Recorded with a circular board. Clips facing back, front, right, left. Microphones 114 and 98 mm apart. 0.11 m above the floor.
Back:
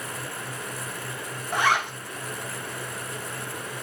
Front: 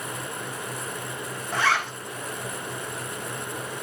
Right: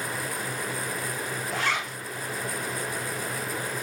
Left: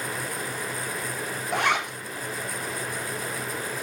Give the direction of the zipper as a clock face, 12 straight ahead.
8 o'clock.